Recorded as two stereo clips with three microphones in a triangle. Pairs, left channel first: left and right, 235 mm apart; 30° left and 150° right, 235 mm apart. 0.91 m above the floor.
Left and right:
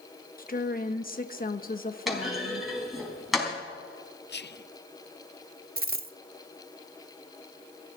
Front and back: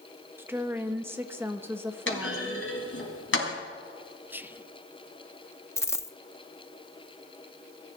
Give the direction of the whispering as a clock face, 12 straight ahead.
8 o'clock.